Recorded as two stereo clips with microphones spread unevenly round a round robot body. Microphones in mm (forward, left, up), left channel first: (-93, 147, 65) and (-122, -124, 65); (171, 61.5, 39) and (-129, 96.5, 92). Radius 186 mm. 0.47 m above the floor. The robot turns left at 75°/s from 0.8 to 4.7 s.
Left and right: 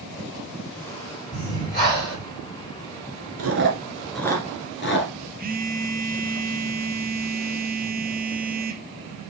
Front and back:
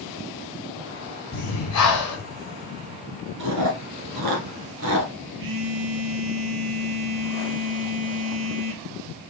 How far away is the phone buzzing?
About 0.9 m.